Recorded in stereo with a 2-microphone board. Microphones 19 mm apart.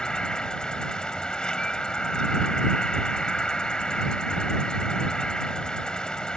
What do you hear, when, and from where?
0.0 s an insect: 55° left (ahead or behind)